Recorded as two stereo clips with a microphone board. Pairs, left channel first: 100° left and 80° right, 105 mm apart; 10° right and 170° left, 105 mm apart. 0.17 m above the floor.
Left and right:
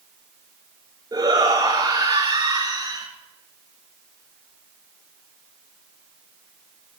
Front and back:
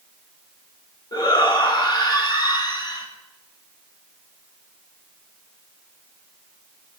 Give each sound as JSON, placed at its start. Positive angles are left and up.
{"t": 1.1, "sound": "a shout", "azimuth_deg": -45, "distance_m": 2.5}